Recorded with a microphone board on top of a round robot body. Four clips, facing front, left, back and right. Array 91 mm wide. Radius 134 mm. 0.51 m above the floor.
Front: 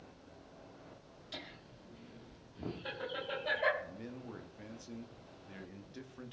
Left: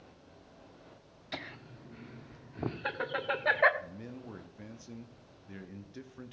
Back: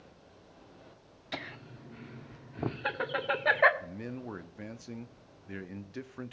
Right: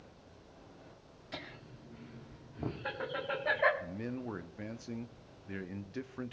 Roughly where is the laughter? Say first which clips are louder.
Left 3 dB, back 9 dB; behind left.